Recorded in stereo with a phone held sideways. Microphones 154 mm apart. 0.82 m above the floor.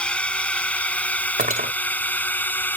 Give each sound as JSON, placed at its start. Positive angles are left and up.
{"t": 0.0, "sound": "a drone", "side_deg": 5}
{"t": 1.4, "sound": "cutlery clinking", "side_deg": -65}